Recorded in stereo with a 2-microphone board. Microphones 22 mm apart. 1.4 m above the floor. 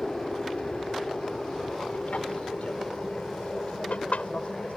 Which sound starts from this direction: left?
An aircraft, at 0.0 s.